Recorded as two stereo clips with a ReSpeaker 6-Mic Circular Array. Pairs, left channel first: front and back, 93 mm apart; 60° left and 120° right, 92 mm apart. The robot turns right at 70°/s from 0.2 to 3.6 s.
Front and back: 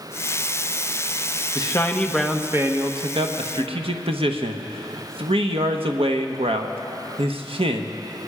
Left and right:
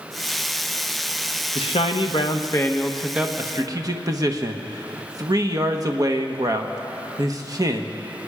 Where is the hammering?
I don't hear hammering.